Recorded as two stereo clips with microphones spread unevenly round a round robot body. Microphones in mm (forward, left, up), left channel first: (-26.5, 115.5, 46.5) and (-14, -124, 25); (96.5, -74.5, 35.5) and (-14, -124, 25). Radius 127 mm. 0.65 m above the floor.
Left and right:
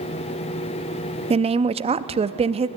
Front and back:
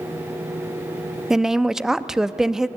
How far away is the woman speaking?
About 0.5 m.